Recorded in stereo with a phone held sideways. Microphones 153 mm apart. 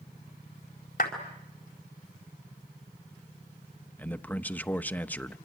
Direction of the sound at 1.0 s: 65° left (ahead or behind).